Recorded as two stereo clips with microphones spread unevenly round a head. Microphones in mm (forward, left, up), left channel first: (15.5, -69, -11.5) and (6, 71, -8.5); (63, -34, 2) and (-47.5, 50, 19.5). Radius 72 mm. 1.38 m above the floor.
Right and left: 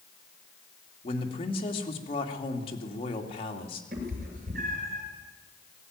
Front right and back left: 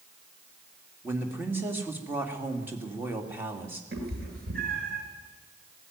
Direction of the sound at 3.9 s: 130° left.